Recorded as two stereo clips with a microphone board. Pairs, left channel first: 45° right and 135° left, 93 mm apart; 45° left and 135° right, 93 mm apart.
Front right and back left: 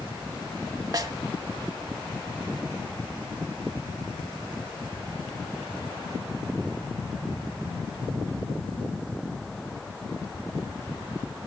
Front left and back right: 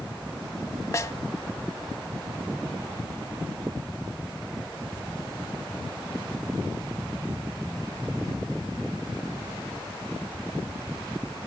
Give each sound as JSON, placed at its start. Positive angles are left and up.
{"t": 0.9, "sound": "a snare drum", "azimuth_deg": 95, "distance_m": 0.6}